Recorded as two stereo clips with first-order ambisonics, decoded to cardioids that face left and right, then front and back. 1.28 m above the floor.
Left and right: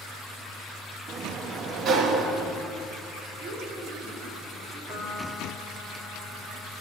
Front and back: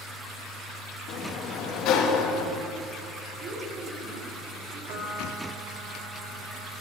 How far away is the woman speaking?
About 4 m.